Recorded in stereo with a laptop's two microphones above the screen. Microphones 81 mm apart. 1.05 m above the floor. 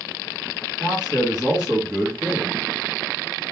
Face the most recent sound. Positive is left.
turn(degrees=-10)  # may be behind; listen again after turning